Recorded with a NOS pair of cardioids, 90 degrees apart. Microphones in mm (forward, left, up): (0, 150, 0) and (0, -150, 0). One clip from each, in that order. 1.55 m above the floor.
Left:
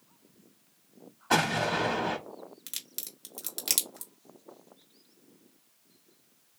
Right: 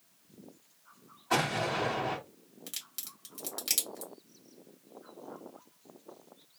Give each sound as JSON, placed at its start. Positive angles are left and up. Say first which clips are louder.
{"t": 1.3, "sound": "an explosion", "louder": "left 3 dB", "azimuth_deg": 50, "distance_m": 1.5}
{"t": 2.7, "sound": "a crack", "louder": "even", "azimuth_deg": 25, "distance_m": 1.6}